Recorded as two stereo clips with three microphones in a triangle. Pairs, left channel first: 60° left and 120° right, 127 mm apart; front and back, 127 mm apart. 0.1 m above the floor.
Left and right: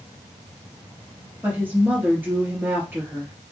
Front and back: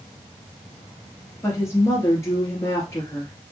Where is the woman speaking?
50° right, 1.8 m.